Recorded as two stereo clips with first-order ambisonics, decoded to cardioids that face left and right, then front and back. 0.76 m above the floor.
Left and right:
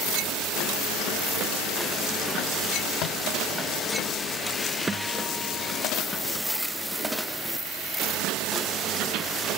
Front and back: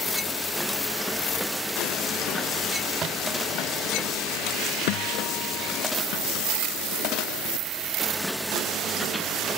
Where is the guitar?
10° right.